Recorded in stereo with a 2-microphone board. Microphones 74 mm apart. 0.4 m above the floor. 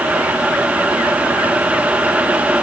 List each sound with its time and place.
Only background noise.